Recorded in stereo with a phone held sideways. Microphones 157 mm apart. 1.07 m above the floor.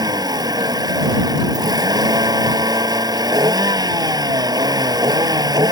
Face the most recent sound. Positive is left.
turn(degrees=-25)  # may be behind; listen again after turning